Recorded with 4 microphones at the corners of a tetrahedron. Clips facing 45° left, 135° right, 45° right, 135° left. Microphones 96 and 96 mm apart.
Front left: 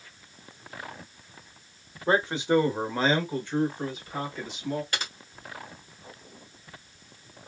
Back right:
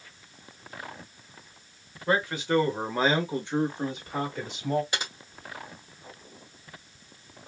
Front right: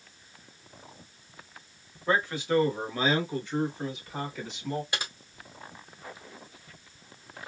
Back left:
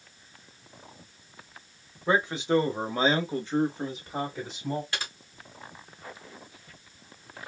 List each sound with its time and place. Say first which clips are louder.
2.1 s a man speaking: front left 2 dB, back left 2 dB; 75° left, 1.0 m; by 4.8 s 170° right, 1.6 m
4.9 s typing on a keyboard: back right 1 dB, even; 90° right, 1.3 m